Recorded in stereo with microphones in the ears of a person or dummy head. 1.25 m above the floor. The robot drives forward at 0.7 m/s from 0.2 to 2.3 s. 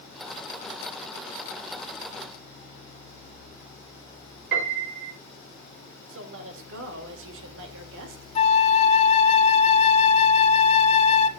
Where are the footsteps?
No footsteps in this recording.